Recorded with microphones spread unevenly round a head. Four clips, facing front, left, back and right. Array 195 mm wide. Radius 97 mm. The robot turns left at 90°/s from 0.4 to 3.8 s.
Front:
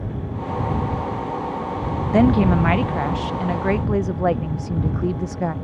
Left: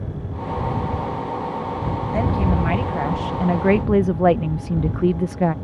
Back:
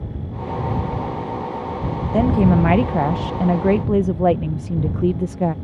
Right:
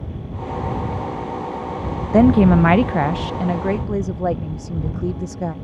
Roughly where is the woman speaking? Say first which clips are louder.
Right 11 dB, even; right.